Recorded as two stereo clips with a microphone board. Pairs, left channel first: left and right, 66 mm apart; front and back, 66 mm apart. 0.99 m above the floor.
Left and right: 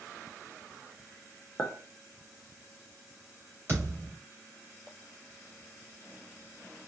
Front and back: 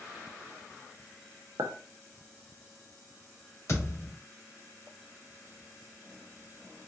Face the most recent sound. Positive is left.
turn(degrees=-40)